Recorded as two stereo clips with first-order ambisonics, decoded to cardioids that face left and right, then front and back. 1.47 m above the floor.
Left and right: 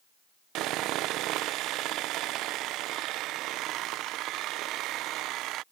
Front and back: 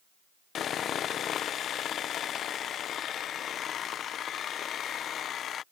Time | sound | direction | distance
0.6 | sawing | 55° right | ?